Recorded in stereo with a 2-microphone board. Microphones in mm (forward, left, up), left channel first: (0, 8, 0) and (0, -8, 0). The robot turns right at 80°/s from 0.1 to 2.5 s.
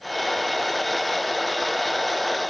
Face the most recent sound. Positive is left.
No sound to turn to.